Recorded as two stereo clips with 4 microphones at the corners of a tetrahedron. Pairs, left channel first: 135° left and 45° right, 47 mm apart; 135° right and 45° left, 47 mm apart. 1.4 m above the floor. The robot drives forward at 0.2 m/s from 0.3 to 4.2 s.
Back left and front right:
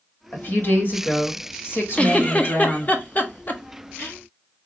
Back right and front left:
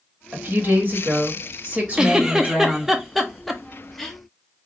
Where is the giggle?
105° left, 0.7 m; by 4.2 s 145° left, 0.8 m.